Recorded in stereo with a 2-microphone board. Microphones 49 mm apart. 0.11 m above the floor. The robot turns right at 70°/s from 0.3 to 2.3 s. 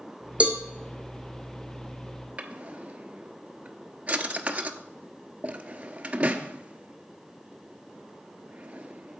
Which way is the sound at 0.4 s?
30° right (ahead or behind).